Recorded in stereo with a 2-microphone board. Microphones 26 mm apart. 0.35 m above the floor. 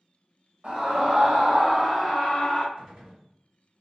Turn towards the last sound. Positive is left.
turn(degrees=-35)  # may be behind; listen again after turning